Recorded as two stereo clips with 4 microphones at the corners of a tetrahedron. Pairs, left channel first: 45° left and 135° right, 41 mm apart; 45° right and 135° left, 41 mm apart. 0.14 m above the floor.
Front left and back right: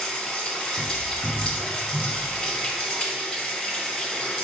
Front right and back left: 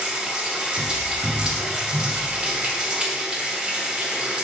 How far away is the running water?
About 1.5 m.